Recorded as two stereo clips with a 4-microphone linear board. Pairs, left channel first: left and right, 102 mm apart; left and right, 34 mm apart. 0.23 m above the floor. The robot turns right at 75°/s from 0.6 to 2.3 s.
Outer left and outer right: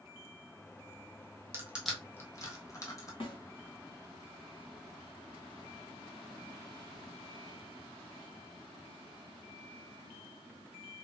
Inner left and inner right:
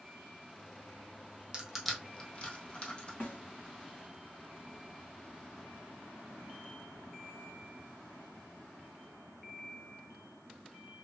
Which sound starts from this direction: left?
A snare drum, at 3.2 s.